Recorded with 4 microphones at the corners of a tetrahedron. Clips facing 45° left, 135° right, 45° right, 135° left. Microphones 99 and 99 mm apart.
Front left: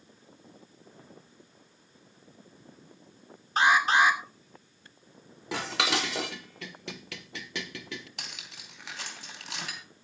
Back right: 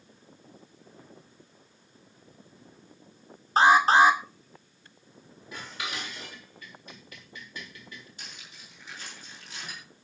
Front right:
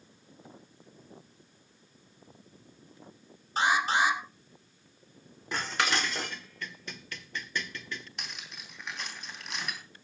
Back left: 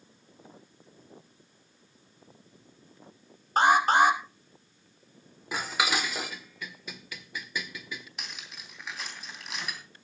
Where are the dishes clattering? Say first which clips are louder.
Front left 8 dB, back left 1 dB; 50° left, 1.0 m.